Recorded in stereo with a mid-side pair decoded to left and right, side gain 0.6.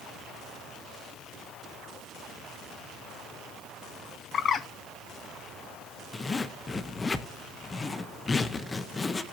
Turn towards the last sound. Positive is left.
turn(degrees=25)